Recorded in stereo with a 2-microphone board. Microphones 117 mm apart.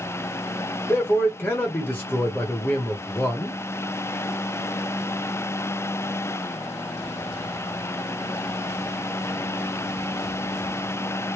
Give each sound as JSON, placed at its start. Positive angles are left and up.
{"t": 0.9, "sound": "a man speaking", "side_deg": 20, "distance_m": 1.1}